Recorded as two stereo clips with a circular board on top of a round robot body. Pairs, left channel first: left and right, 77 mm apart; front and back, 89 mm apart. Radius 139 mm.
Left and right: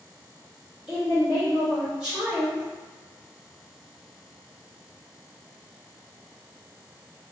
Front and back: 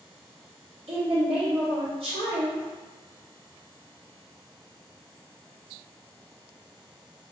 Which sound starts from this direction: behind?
A woman speaking, at 0.9 s.